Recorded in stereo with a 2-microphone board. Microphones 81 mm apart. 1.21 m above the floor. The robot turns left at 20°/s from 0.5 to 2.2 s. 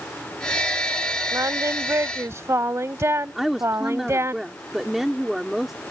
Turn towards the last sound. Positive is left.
turn(degrees=-5)  # may be behind; listen again after turning